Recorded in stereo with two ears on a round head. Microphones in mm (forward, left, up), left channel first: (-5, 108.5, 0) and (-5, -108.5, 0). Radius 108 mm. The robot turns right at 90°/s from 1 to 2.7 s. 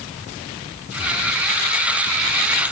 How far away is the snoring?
No snoring in this recording.